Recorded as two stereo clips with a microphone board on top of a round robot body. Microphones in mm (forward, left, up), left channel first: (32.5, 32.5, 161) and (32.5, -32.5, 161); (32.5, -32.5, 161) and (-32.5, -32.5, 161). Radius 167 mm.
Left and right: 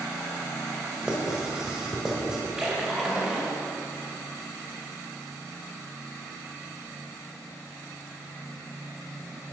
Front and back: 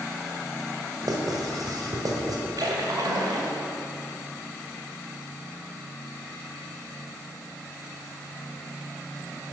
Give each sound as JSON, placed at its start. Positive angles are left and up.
{"t": 1.0, "sound": "writing", "azimuth_deg": -170, "distance_m": 2.0}
{"t": 2.6, "sound": "a splash", "azimuth_deg": -175, "distance_m": 2.5}